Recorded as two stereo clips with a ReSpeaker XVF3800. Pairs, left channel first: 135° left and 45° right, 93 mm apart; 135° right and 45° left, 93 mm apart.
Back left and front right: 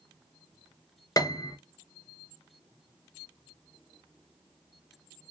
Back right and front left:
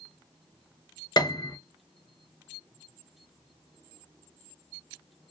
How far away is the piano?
About 0.5 m.